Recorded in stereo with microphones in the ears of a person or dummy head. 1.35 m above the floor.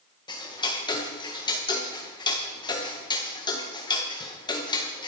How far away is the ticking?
About 1.6 m.